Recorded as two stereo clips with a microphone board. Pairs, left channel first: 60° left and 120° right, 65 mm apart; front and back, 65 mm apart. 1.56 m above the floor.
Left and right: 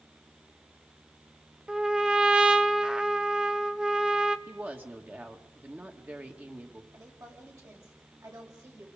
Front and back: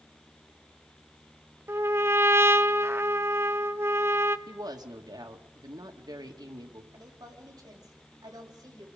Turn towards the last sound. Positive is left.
turn(degrees=-155)